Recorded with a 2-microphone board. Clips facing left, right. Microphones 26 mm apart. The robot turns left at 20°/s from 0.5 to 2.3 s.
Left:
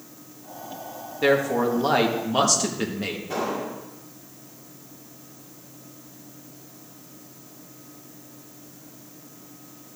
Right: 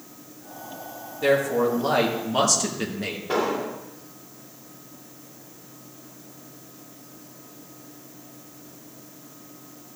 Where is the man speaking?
30° left (ahead or behind), 1.6 m; by 3.2 s 10° left (ahead or behind), 1.6 m.